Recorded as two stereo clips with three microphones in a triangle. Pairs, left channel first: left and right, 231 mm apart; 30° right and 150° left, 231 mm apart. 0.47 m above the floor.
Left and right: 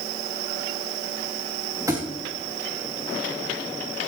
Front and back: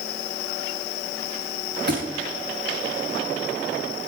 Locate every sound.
1.9 s a thud: 165° right, 3.5 m